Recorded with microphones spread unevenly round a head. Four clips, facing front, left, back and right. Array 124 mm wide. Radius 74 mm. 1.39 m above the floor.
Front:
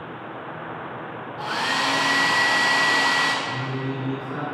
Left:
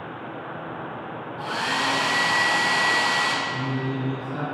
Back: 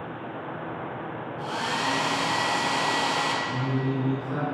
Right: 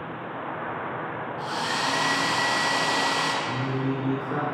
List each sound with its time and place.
1.4 s a hair dryer: 15° left, 2 m
3.5 s singing: 95° right, 2 m